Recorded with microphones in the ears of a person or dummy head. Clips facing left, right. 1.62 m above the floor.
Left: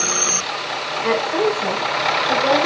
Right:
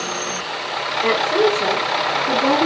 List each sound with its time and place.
1.0 s a woman speaking: 75° right (ahead or behind), 4.5 m; by 2.7 s 70° right (ahead or behind), 3.5 m